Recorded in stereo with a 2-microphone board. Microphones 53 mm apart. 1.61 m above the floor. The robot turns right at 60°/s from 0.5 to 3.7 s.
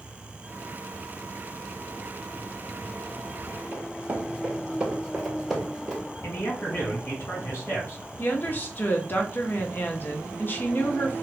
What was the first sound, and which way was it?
Running footsteps, 30° right (ahead or behind).